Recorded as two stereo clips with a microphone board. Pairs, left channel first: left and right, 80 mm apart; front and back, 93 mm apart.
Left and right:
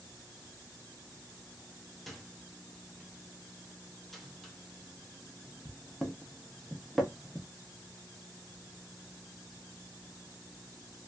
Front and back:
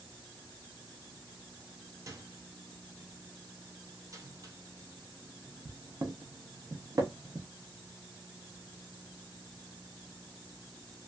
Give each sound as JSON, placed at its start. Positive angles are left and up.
{"t": 2.1, "sound": "a microwave", "azimuth_deg": 180, "distance_m": 0.6}